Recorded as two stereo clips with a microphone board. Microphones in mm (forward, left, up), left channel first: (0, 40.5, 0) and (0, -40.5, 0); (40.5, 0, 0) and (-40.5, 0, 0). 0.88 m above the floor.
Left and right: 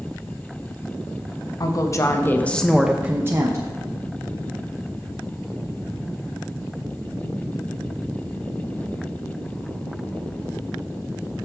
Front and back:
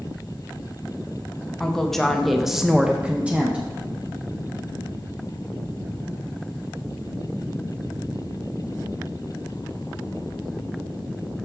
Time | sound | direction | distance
1.6 | a woman speaking | 80° left | 1.0 m